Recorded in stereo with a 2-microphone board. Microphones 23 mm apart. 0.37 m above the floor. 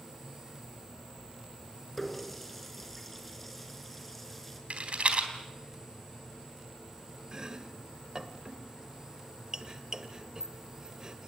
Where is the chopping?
30° right (ahead or behind), 1.5 m.